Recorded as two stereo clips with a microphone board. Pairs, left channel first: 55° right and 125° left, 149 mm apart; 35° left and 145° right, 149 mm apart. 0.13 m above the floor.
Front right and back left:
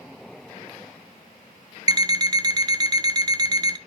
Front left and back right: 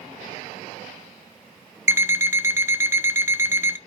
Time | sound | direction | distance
1.9 | an alarm clock | 160° left | 0.5 m